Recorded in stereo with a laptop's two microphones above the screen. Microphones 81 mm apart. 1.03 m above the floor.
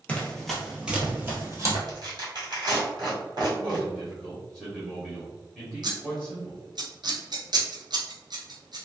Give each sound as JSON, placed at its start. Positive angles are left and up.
{"t": 0.1, "sound": "running footsteps", "side_deg": 15, "distance_m": 1.0}
{"t": 1.9, "sound": "tearing paper", "side_deg": -55, "distance_m": 1.4}
{"t": 3.5, "sound": "a man speaking", "side_deg": 5, "distance_m": 1.0}
{"t": 5.8, "sound": "scissors", "side_deg": -60, "distance_m": 0.7}